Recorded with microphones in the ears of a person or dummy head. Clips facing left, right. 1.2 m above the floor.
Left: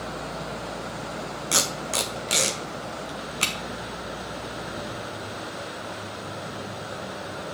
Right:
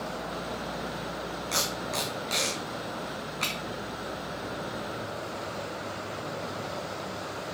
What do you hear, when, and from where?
1.5 s tape being pulled: 45° left (ahead or behind), 1.1 m